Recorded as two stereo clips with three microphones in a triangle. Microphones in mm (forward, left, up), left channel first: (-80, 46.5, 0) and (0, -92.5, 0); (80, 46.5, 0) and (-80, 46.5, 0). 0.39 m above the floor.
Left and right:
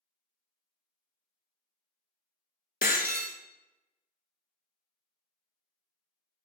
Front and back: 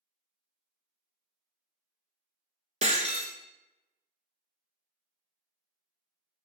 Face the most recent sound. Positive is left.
turn(degrees=135)